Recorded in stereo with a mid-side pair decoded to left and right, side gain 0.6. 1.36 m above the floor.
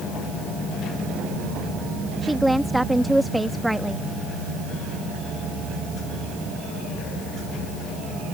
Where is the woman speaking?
Straight ahead.